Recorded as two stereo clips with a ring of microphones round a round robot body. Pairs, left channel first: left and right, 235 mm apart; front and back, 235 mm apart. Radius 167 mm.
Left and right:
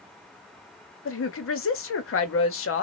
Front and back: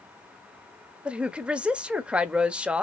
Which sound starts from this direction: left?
A woman speaking, at 1.1 s.